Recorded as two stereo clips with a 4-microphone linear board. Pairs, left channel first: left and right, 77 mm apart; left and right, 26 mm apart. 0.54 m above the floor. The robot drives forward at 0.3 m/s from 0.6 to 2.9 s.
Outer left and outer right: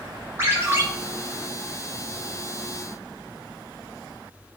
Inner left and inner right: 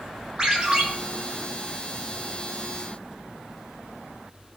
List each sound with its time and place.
0.4 s a ringtone: 30° right (ahead or behind), 1.2 m